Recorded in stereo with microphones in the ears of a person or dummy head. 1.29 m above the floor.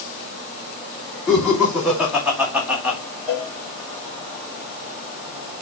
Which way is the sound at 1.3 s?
Centre (ahead or behind).